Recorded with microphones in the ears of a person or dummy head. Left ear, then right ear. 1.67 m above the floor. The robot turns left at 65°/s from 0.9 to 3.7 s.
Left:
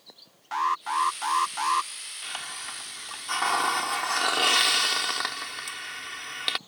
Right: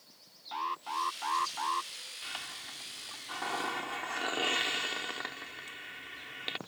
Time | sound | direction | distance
0.5 | an alarm | 125° left | ?
2.2 | a hiss | 155° left | ?